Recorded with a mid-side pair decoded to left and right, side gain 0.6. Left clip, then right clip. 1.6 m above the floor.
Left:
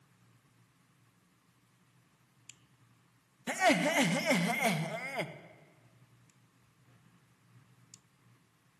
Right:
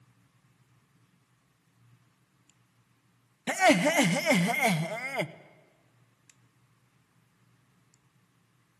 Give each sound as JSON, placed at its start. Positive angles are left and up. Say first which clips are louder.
{"t": 3.5, "sound": "laughter", "louder": "right 5 dB", "azimuth_deg": -30, "distance_m": 0.7}